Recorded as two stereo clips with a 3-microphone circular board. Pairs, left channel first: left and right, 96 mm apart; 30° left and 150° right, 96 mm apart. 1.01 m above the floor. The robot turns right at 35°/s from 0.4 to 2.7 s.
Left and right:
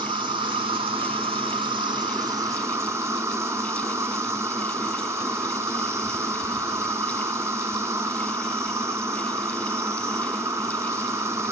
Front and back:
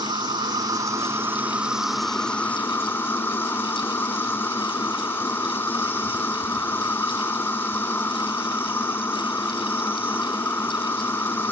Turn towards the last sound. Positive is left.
turn(degrees=-35)